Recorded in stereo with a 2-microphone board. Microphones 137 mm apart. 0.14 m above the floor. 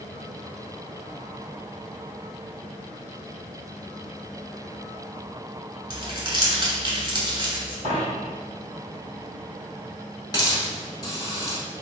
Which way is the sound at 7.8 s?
55° right (ahead or behind).